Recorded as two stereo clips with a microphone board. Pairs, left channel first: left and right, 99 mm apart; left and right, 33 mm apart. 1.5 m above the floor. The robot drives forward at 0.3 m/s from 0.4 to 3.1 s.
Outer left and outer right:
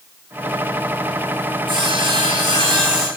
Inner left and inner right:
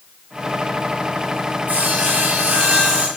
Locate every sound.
1.7 s sawing: 55° right (ahead or behind), 5 m